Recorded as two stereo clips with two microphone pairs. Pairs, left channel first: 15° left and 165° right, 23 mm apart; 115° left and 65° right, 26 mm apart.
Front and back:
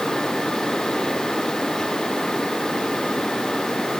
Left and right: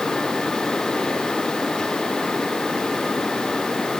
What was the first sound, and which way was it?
Only background noise.